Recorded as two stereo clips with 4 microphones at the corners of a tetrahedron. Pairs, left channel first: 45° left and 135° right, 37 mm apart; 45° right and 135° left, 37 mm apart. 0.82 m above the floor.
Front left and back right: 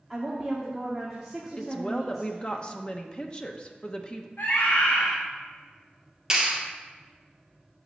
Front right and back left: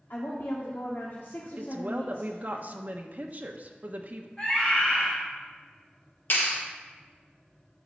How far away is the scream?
About 2.5 m.